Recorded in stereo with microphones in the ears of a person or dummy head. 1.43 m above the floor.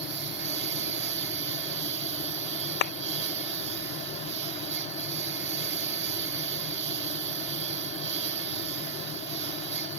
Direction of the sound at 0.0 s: 60° right (ahead or behind).